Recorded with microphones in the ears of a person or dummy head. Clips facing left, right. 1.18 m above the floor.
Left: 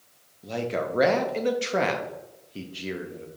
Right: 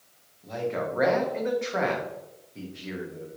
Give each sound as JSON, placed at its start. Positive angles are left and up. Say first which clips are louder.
{"t": 0.4, "sound": "a man speaking", "louder": "left 1 dB", "side_deg": 40, "distance_m": 0.5}